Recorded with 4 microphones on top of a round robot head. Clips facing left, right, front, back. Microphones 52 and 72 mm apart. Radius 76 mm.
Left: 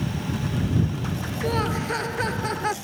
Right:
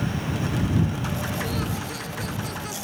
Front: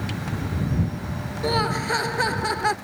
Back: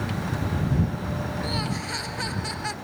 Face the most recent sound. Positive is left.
turn(degrees=40)